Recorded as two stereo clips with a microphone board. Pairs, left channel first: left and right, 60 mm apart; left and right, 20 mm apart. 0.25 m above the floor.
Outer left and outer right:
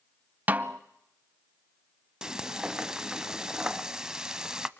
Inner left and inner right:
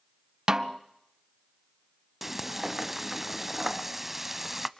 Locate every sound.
0.5 s a snare drum: 30° right (ahead or behind), 0.7 m
2.2 s frying: 10° right (ahead or behind), 0.6 m